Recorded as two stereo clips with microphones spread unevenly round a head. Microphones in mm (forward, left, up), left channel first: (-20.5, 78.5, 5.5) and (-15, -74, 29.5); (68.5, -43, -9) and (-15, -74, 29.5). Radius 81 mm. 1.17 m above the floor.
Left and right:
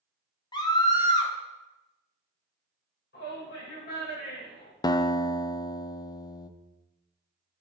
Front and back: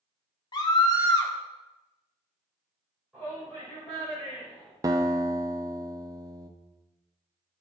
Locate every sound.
0.5 s a scream: 35° left, 1.5 m
3.1 s a shout: 110° left, 6 m
4.8 s a guitar: 125° left, 0.6 m